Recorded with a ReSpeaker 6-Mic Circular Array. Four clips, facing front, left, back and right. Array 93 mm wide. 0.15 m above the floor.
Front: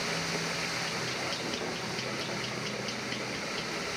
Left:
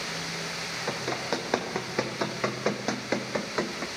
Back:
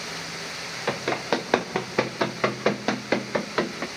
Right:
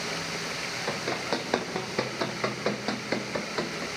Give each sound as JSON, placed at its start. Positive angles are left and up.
{"t": 0.9, "sound": "running footsteps", "azimuth_deg": 175, "distance_m": 4.0}